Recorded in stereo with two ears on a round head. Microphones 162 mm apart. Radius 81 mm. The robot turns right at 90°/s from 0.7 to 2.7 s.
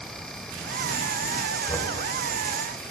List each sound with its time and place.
1.7 s knocking: 20° left (ahead or behind), 3 m; by 1.9 s 10° right (ahead or behind), 3 m